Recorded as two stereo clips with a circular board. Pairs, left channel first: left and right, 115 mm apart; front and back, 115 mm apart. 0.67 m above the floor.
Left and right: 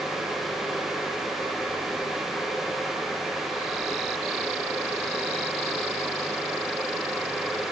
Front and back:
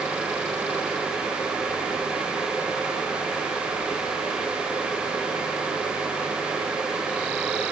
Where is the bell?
No bell in this recording.